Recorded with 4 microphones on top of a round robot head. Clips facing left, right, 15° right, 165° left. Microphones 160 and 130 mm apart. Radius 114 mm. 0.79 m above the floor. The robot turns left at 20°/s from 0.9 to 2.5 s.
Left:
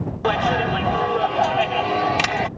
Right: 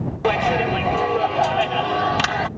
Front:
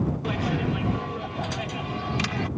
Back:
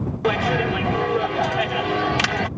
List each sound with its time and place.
0.2 s a clap: 170° right; by 2.5 s 160° left